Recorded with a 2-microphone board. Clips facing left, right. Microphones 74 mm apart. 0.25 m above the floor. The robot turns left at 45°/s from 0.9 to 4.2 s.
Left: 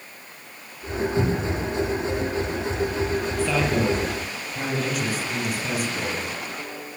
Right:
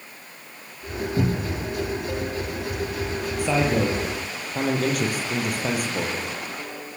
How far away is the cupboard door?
About 6 m.